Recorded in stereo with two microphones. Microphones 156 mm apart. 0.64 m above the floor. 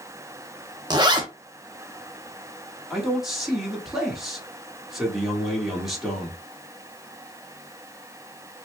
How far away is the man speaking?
About 1.4 m.